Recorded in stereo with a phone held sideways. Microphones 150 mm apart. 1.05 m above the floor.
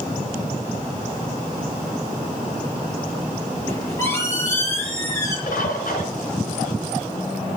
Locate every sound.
3.7 s a squeak: 20° left (ahead or behind), 7.5 m
5.5 s a bird: 80° left, 4 m